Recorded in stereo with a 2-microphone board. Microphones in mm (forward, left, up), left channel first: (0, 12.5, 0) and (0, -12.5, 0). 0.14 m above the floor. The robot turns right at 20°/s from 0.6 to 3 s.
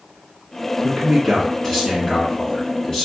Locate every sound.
0.8 s a man speaking: 15° left (ahead or behind), 1.4 m; by 3.1 s 25° left (ahead or behind), 1.4 m